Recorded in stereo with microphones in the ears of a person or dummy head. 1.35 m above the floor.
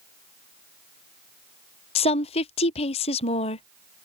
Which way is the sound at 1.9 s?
40° left (ahead or behind).